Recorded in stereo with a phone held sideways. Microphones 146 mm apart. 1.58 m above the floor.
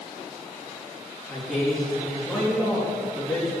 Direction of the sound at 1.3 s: Centre (ahead or behind).